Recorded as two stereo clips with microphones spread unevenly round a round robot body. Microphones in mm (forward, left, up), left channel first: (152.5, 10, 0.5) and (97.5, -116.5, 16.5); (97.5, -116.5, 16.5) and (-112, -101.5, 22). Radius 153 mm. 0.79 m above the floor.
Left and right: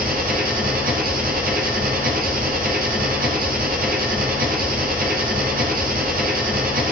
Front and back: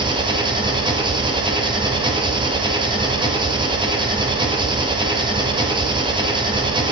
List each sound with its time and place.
0.0 s an engine running: 115° right, 2.5 m